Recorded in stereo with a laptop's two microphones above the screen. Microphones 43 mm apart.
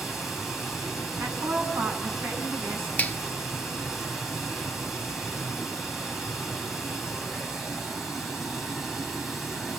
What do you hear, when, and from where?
0.0 s running water: 5° right (ahead or behind), 5.5 m
1.2 s a woman speaking: 75° right (ahead or behind), 8 m
3.0 s a finger snap: 35° left (ahead or behind), 1.1 m